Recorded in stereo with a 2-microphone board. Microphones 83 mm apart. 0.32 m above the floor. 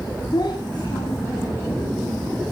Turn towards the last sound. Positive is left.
turn(degrees=60)  # may be behind; listen again after turning